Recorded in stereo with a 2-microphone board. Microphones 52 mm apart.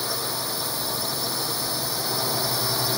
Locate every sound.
0.0 s a drone: centre (ahead or behind)